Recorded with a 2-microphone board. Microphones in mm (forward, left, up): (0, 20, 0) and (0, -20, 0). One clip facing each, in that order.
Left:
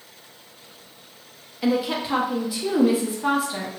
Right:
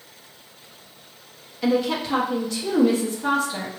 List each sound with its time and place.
1.6 s a woman speaking: 15° left (ahead or behind), 0.9 m